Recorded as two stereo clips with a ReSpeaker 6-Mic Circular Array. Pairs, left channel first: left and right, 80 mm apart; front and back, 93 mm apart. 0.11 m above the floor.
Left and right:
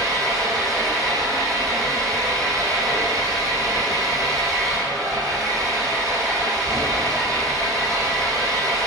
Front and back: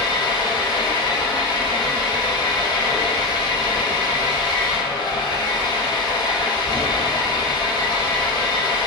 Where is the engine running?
40° right, 4 m.